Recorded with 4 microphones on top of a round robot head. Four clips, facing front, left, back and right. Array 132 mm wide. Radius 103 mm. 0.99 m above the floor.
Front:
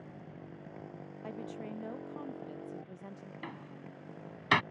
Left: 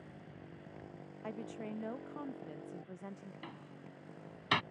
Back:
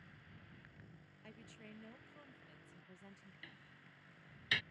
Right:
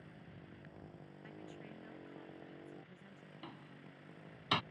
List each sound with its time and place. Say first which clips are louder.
0.0 s a motorcycle: left 4 dB, front 14 dB; 10° left
1.2 s a woman speaking: left 10 dB, front 16 dB; 60° left
3.4 s a door slam: left 3 dB, front 18 dB; straight ahead